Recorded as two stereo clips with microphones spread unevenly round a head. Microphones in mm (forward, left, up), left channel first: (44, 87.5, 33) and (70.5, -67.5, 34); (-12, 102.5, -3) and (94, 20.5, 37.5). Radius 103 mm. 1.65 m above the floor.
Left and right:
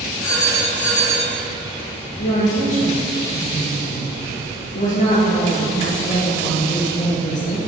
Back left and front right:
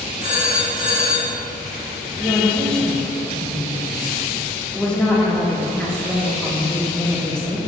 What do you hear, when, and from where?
0.2 s a phone ringing: 125° left, 2.5 m
2.2 s a woman speaking: 55° left, 1.8 m